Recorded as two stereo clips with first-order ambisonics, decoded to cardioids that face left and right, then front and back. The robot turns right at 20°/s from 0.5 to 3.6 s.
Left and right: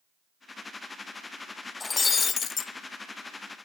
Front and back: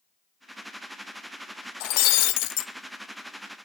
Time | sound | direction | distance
1.8 | breaking glass | 10° left | 1.0 m